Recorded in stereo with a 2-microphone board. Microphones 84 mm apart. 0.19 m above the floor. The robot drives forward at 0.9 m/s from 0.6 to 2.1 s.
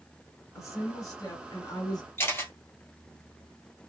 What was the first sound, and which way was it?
A woman speaking, 40° left (ahead or behind).